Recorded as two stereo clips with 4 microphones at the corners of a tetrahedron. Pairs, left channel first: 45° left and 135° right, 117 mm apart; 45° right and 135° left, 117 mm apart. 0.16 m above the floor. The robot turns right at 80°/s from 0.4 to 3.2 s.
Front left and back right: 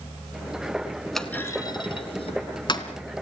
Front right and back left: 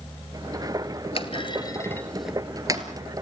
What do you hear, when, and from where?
1.1 s a clunk: 45° right, 2 m; by 2.9 s 95° left, 2 m